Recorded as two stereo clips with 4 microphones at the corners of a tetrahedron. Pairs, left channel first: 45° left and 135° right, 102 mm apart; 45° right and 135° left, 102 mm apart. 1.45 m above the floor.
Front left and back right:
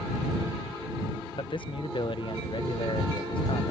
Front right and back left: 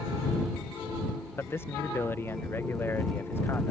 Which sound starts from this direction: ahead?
A man speaking, at 1.4 s.